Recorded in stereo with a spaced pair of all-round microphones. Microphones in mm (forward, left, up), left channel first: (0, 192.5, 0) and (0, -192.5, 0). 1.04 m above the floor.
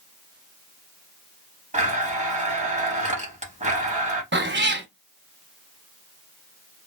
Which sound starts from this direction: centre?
A blender, at 1.7 s.